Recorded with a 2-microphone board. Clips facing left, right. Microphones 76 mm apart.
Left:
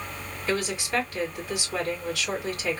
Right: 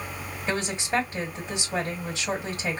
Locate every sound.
0.5 s a woman speaking: 25° right (ahead or behind), 1.6 m